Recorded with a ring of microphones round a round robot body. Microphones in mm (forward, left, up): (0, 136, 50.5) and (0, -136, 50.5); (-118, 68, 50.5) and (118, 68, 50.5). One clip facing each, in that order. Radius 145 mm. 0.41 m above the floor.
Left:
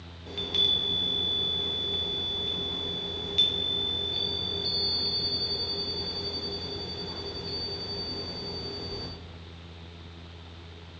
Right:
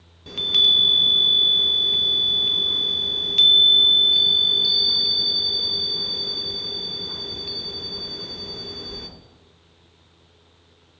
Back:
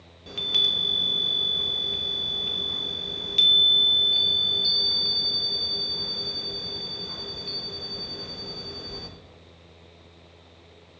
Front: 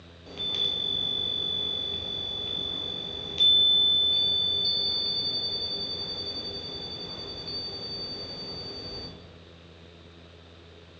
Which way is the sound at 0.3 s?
130° right.